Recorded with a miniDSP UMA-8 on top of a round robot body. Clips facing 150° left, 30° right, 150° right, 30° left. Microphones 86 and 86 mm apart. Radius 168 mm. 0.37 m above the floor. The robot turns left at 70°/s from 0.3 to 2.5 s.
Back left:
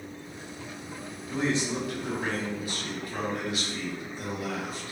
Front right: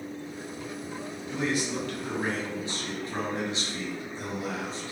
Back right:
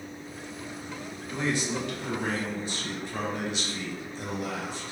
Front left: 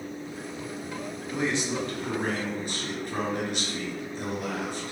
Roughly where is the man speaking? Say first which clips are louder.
Back left 2 dB, front left 1 dB; left.